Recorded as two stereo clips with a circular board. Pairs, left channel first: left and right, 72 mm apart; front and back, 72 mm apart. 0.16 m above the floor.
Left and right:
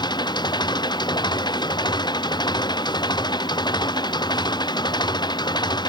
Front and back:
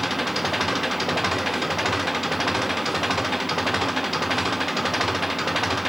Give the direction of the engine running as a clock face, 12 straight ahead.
9 o'clock.